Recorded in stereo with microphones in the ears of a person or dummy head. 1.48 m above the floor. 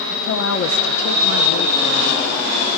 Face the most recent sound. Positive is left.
turn(degrees=70)  # may be behind; listen again after turning